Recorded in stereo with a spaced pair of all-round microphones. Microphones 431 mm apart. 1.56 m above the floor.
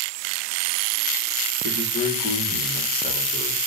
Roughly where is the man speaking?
Centre.